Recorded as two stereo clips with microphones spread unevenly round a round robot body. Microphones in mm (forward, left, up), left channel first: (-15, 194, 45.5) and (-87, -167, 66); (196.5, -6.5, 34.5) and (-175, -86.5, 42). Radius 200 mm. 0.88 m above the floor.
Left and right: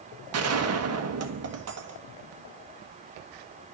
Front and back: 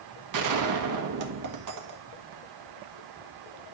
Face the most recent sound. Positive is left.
turn(degrees=-145)